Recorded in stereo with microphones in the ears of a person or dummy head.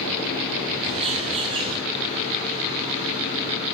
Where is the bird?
30° right (ahead or behind), 4 m.